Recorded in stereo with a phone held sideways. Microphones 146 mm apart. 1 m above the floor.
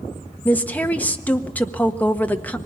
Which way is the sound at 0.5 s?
10° left (ahead or behind).